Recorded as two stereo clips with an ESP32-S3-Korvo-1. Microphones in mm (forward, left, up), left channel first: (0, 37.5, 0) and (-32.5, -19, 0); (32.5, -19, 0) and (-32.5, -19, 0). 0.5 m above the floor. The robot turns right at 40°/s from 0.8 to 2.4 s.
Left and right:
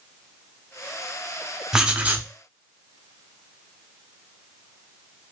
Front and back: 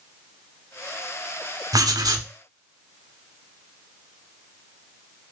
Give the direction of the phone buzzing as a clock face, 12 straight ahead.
I don't hear a phone buzzing.